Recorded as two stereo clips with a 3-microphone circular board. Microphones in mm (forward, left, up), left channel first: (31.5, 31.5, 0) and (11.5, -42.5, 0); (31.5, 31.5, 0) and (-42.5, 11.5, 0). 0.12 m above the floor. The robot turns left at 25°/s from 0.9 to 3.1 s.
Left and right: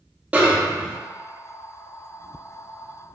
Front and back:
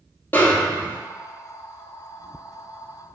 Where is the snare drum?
40° right, 0.5 m.